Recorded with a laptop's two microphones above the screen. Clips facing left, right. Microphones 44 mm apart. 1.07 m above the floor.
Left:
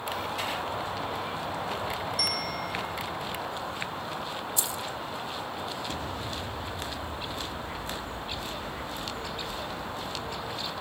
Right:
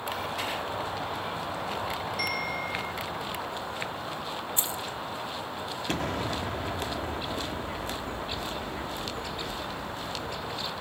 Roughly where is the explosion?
Right.